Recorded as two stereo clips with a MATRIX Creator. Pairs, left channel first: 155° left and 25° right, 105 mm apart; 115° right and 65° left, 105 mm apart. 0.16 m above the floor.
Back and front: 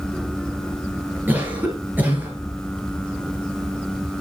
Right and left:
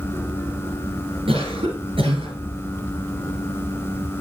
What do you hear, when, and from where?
1.3 s a cough: 50° left, 3 m